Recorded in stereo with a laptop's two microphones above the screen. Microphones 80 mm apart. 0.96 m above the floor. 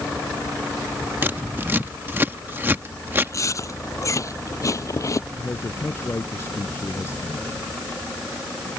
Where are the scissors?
25° right (ahead or behind).